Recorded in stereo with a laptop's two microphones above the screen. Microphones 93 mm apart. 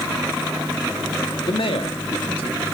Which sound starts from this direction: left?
A man speaking, at 1.4 s.